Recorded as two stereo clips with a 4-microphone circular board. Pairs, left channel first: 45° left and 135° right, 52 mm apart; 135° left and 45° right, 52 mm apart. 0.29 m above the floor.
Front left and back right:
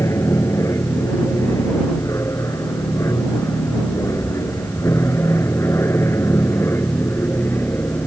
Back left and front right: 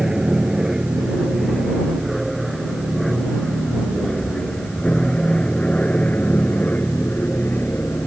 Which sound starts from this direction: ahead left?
An aircraft, at 0.0 s.